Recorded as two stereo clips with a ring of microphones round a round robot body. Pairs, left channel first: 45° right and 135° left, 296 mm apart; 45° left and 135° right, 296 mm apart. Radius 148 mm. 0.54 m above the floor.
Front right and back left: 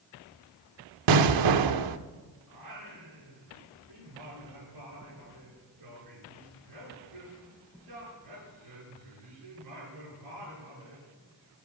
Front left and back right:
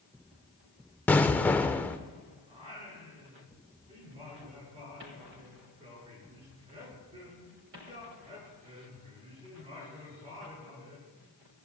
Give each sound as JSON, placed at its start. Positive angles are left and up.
{"t": 1.1, "sound": "an explosion", "azimuth_deg": 130, "distance_m": 0.7}
{"t": 2.5, "sound": "singing", "azimuth_deg": 155, "distance_m": 7.0}